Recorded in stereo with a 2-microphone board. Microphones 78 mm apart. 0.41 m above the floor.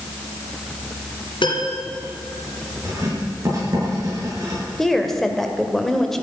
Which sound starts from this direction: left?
A piano, at 1.4 s.